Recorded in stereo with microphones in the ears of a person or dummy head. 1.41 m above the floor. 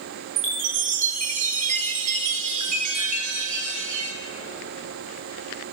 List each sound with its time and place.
0.4 s a chime: 35° right (ahead or behind), 1.8 m